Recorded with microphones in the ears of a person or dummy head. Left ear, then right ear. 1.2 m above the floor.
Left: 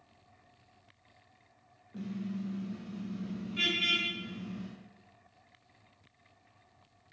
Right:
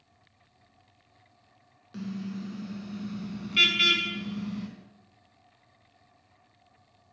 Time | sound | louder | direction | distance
1.9 | a car horn | right 3 dB | 85° right | 6 m